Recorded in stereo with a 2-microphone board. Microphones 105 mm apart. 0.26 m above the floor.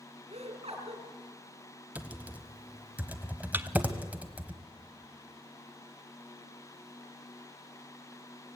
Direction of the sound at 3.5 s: 20° right (ahead or behind).